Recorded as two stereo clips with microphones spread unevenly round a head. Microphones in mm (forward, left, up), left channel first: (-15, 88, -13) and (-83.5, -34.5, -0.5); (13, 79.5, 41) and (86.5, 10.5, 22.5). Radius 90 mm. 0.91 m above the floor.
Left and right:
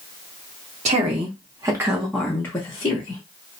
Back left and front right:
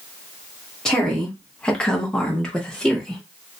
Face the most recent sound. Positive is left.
turn(degrees=45)